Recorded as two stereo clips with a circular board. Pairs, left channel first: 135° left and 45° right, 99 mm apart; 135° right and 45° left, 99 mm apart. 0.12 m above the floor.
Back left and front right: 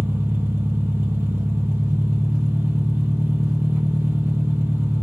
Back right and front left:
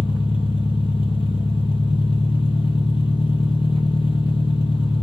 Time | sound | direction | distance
0.0 | an engine running | 110° right | 0.8 m